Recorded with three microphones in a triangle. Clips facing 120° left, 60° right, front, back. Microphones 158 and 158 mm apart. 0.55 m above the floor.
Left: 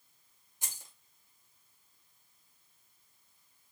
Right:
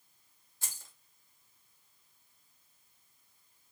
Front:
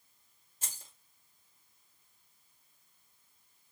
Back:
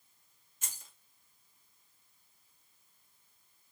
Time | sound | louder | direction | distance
0.6 | keys jangling | left 1 dB, front 1 dB | 50° left | 1.3 m